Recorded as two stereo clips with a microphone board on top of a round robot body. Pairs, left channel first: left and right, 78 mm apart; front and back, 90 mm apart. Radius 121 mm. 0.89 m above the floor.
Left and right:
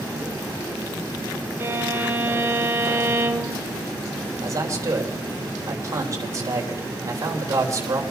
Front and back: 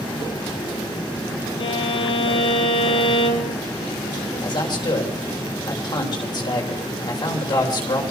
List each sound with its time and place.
1.6 s a violin: 30° right, 1.8 m
4.4 s a man speaking: 40° right, 3 m